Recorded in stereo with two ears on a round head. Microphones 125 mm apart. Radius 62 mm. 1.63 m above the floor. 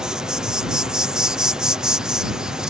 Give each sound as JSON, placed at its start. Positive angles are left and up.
{"t": 0.0, "sound": "an insect", "side_deg": -5}